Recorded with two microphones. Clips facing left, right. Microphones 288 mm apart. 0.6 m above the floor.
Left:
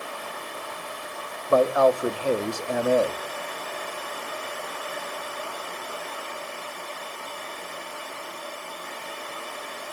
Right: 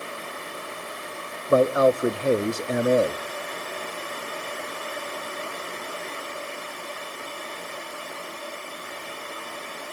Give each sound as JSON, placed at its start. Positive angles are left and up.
{"t": 1.5, "sound": "a man speaking", "side_deg": -20, "distance_m": 0.6}